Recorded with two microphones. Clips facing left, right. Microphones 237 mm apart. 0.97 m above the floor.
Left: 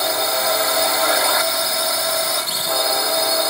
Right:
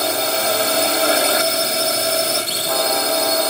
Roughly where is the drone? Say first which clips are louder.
Right 2 dB; right.